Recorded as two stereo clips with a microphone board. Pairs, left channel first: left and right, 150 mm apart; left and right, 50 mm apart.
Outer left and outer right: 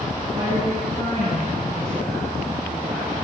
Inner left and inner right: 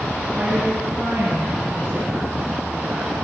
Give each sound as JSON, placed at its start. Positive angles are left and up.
{"t": 0.3, "sound": "a woman speaking", "side_deg": -30, "distance_m": 1.7}